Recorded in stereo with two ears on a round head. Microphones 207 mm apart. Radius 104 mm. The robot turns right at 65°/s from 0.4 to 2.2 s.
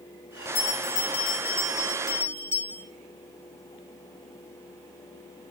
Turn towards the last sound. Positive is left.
turn(degrees=-145)